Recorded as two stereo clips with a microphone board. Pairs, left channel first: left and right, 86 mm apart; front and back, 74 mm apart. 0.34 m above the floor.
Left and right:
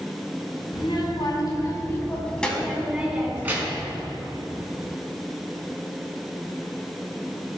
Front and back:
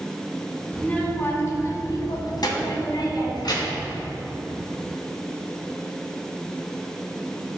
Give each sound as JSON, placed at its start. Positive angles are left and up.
{"t": 0.7, "sound": "a child speaking", "azimuth_deg": 70, "distance_m": 1.8}